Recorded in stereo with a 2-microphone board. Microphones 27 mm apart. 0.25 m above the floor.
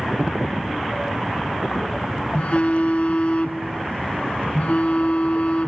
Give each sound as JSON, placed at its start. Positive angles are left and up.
{"t": 2.3, "sound": "a phone buzzing", "side_deg": 60, "distance_m": 0.6}